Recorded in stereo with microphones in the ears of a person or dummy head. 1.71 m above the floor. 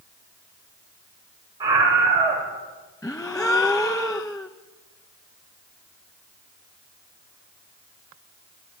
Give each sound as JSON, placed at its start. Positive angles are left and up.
{"t": 1.6, "sound": "a scream", "side_deg": -25, "distance_m": 6.0}
{"t": 3.0, "sound": "a gasp", "side_deg": 15, "distance_m": 1.0}